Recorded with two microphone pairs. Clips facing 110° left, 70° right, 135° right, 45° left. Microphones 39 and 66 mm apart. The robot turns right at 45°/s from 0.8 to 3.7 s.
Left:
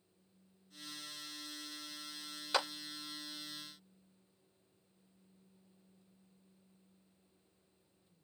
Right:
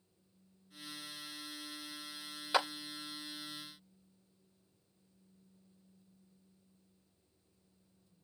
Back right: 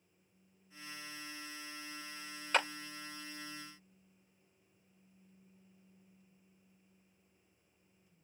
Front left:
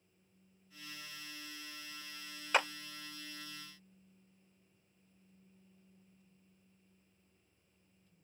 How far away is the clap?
About 0.6 m.